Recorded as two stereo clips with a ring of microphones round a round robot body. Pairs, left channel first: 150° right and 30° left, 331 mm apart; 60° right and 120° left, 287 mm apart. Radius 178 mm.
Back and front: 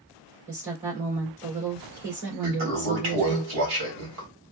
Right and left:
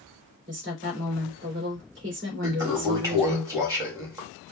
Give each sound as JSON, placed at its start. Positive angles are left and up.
{"t": 0.5, "sound": "a woman speaking", "azimuth_deg": 70, "distance_m": 2.5}
{"t": 2.4, "sound": "a toilet flushing", "azimuth_deg": 40, "distance_m": 1.7}